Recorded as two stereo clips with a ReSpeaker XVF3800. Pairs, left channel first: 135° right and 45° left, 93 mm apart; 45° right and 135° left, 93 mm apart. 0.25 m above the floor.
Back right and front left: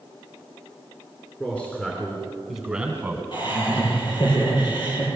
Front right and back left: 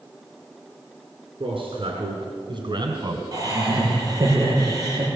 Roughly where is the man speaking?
Behind left.